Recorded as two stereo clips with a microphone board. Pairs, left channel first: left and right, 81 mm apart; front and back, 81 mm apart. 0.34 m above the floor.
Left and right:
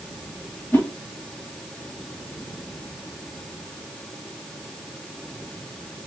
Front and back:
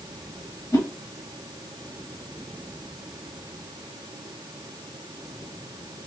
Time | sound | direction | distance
0.7 | a whoosh | 25° left | 1.6 m